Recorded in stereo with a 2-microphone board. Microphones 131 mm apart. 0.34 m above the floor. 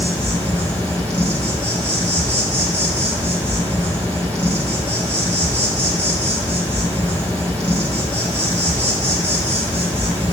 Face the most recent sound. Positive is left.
turn(degrees=10)  # may be behind; listen again after turning